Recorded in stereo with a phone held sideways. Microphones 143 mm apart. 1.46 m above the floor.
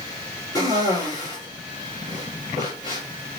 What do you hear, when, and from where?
0.6 s a cough: 30° left (ahead or behind), 2 m